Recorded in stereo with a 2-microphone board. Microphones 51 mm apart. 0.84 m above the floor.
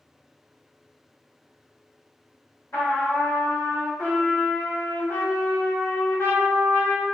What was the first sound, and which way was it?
A trumpet, 85° left.